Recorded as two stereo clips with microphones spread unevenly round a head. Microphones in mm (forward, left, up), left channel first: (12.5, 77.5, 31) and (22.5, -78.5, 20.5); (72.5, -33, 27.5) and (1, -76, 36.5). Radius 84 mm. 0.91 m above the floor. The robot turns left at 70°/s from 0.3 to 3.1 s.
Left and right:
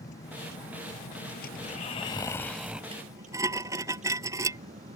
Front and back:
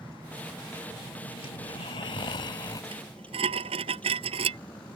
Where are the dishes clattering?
145° right; by 4.6 s 160° right.